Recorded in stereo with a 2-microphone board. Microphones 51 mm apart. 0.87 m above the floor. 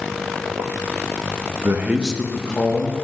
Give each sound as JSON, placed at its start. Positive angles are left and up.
{"t": 1.6, "sound": "a man speaking", "side_deg": -45, "distance_m": 0.7}